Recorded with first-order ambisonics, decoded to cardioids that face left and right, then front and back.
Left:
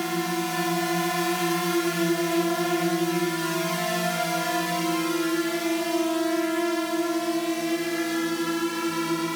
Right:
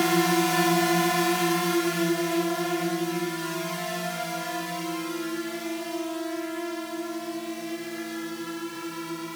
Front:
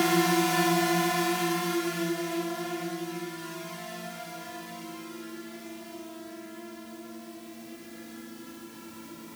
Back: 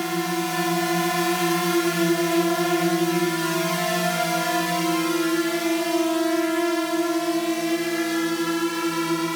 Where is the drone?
60° right; by 9.4 s 155° left.